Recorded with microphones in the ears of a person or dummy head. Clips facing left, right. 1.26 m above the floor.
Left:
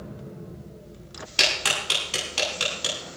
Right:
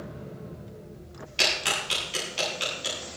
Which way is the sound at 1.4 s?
70° left (ahead or behind).